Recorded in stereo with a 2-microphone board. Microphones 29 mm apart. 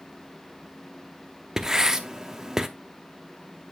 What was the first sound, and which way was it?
Writing, 20° right (ahead or behind).